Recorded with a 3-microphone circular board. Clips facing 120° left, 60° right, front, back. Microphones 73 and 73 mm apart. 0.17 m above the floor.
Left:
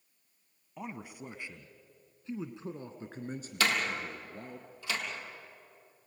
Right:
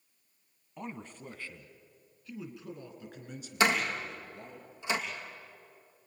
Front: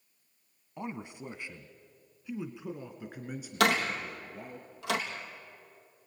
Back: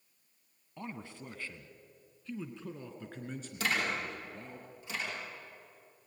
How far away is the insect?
No insect in this recording.